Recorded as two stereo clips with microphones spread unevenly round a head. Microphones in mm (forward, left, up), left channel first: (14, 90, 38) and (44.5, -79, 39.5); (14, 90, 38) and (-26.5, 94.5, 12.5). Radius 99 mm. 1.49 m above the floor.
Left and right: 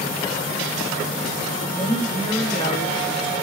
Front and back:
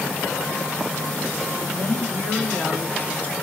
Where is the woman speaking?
40° left, 3 m.